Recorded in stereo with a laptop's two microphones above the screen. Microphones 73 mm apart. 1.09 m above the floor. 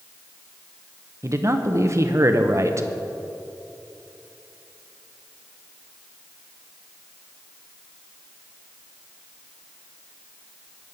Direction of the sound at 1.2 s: 45° right (ahead or behind).